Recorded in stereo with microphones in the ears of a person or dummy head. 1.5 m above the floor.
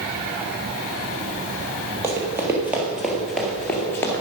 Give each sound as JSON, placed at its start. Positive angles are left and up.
{"t": 2.0, "sound": "running footsteps", "side_deg": -15, "distance_m": 2.5}